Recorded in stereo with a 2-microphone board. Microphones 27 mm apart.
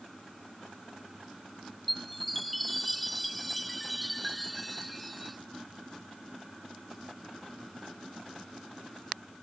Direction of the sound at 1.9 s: 5° left (ahead or behind).